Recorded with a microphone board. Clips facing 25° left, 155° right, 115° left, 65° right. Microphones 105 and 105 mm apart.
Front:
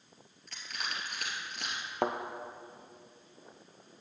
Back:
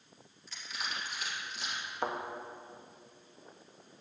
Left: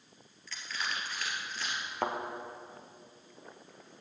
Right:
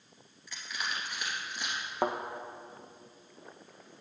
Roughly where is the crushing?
Ahead.